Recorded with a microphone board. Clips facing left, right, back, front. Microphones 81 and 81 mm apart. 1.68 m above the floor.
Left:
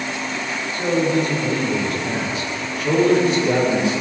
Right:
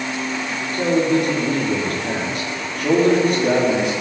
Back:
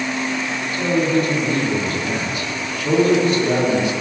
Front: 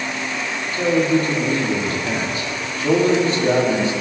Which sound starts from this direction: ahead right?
A man speaking, at 0.7 s.